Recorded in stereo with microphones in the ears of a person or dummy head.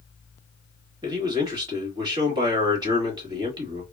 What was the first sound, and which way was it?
A man speaking, 25° right (ahead or behind).